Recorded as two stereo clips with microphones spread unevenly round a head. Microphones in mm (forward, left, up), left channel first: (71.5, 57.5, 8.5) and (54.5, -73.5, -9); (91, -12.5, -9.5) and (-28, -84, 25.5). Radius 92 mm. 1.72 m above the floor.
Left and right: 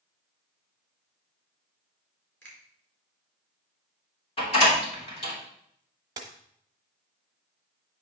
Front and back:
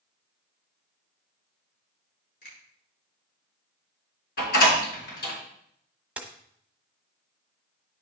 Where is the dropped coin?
135° right, 1.1 m.